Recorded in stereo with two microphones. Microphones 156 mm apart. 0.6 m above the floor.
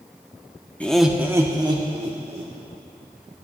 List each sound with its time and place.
0.8 s laughter: 10° left (ahead or behind), 0.7 m; by 2.5 s 40° right (ahead or behind), 1.3 m